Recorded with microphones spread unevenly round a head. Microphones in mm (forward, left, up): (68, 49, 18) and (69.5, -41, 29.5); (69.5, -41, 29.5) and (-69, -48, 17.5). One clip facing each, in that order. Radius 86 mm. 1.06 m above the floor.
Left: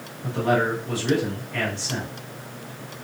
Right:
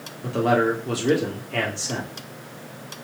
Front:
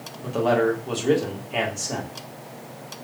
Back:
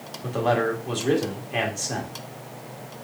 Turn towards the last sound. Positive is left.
turn(degrees=-80)